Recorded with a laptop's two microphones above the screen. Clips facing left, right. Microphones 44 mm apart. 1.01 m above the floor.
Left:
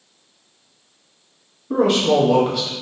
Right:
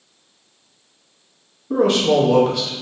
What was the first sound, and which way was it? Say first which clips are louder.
A man speaking: even; 5° left (ahead or behind).